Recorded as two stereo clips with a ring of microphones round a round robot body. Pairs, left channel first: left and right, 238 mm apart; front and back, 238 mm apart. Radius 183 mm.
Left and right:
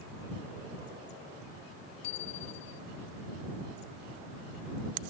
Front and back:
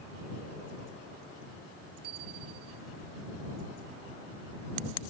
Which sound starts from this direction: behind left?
A bicycle bell, at 2.0 s.